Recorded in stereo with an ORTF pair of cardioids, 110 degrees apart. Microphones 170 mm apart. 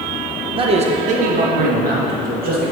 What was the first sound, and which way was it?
A man speaking, 30° right.